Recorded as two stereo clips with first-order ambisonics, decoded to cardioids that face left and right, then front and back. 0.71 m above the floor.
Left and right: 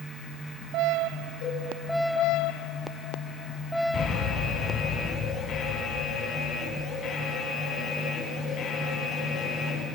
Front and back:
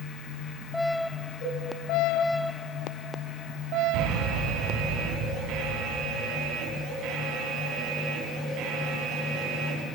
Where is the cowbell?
50° left, 5.5 m.